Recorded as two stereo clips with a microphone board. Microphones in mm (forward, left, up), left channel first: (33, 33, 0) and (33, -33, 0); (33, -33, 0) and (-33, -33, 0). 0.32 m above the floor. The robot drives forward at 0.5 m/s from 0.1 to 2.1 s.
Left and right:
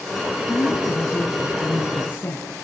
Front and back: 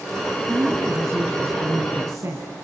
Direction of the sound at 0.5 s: 130° left.